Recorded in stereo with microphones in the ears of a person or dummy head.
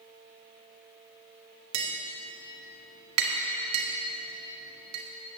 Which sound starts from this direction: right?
Tapping, at 1.7 s.